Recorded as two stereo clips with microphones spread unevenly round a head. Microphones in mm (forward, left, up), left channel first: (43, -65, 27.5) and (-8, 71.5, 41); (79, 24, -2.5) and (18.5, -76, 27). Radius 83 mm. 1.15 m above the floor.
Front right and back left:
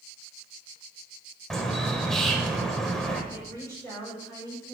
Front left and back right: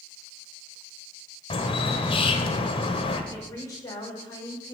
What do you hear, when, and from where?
1.5 s a bird: 20° left, 1.2 m
3.3 s a woman speaking: straight ahead, 5 m